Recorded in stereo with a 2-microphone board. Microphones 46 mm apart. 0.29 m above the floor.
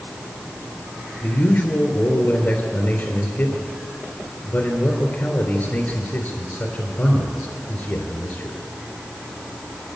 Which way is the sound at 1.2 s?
45° left (ahead or behind).